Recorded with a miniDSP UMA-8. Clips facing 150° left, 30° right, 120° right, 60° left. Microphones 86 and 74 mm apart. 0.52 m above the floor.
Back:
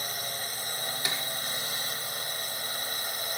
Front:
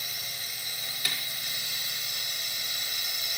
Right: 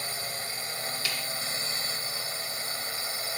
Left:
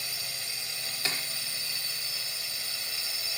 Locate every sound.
0.0 s a drone: 165° right
1.1 s a snare drum: 100° left